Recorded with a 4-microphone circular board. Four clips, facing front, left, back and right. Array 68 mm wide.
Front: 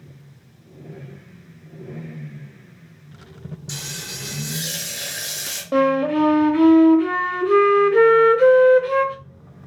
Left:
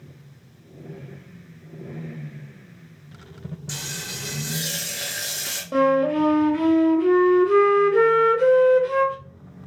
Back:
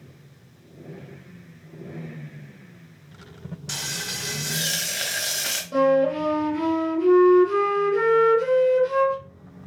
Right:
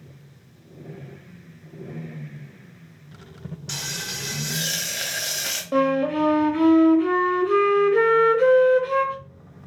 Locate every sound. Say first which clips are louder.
3.7 s frying: right 3 dB, back 4 dB; 150° right, 0.8 m
5.7 s a flute: left 2 dB, front 2 dB; 15° right, 0.6 m